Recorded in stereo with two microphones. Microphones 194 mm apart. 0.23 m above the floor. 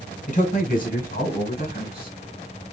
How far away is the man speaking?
About 1.4 m.